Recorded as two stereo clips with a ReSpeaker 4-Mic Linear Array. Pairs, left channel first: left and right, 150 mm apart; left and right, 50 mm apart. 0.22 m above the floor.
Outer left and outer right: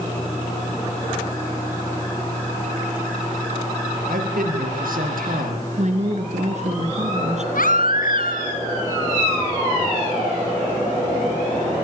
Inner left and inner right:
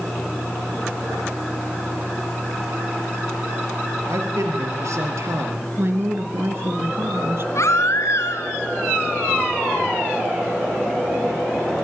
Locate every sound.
4.1 s a man speaking: 70° right (ahead or behind), 5.5 m
5.8 s a woman speaking: 50° right (ahead or behind), 2.5 m
7.5 s a baby crying: 70° left (ahead or behind), 2 m